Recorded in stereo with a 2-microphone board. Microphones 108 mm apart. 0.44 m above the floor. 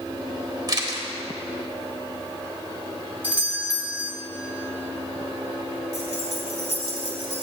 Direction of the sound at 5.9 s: 65° left (ahead or behind).